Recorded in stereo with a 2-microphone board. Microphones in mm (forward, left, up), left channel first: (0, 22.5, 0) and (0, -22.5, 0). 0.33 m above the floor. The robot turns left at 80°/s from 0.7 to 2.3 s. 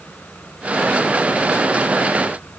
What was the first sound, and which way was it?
Only background noise.